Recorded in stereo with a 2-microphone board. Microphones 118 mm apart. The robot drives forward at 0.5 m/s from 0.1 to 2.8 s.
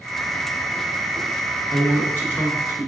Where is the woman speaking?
20° left (ahead or behind), 1.5 m; by 2.9 s 15° left (ahead or behind), 1.5 m.